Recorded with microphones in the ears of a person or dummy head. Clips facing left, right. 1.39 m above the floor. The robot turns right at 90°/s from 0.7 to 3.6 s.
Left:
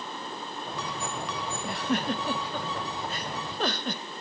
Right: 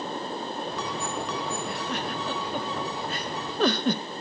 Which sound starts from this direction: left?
A giggle, at 1.6 s.